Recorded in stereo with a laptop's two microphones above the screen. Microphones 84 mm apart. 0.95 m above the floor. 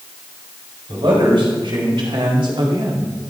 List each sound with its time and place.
0.9 s a man speaking: 80° right, 4 m; by 3.1 s 60° right (ahead or behind), 1.6 m